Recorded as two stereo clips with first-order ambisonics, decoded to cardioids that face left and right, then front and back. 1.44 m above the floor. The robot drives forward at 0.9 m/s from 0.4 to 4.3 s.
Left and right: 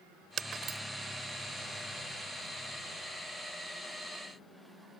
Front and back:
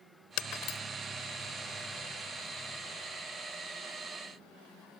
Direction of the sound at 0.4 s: 35° right.